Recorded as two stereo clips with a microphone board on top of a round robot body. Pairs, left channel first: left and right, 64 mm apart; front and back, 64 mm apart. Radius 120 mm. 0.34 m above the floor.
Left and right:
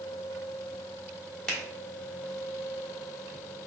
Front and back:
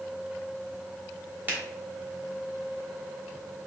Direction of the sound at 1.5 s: 165° left.